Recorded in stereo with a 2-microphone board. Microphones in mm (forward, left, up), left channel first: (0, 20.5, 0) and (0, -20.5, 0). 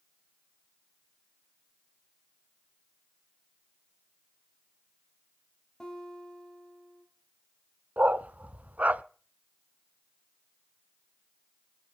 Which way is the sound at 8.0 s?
40° right (ahead or behind).